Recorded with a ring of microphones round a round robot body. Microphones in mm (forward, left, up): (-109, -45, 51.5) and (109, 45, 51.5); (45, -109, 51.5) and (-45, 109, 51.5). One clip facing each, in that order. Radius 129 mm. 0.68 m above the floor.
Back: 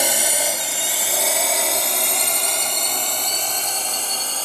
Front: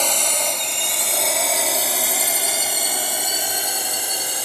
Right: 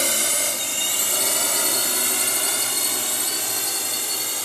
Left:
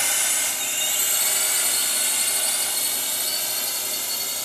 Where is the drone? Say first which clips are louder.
Back 1 dB, right 9 dB; 80° right; by 4.5 s 50° right.